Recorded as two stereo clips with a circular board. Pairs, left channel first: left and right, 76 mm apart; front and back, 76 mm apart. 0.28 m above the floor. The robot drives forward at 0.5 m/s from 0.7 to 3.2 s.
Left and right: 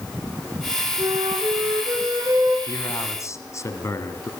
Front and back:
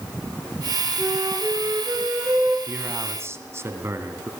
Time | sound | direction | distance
1.0 | a flute | 120° right | 5 m
2.7 | a man speaking | 125° left | 2 m